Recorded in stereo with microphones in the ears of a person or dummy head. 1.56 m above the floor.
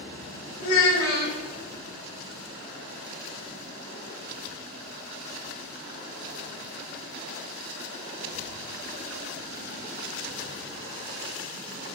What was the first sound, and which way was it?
A child speaking, 55° left (ahead or behind).